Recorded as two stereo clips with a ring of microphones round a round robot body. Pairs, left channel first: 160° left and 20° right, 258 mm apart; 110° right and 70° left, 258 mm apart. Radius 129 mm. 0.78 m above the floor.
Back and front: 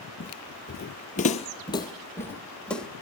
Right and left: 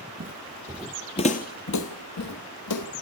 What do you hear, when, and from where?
0.2 s footsteps: 115° left, 1.1 m; by 2.9 s 115° right, 1.9 m